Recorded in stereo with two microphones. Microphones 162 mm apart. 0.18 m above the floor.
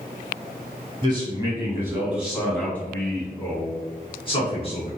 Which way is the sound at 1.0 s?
30° right (ahead or behind).